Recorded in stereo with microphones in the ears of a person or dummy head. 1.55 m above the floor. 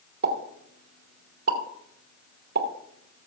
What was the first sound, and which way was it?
A pop, 55° right (ahead or behind).